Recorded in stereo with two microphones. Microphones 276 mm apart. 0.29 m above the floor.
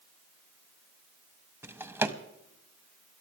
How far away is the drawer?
About 0.7 m.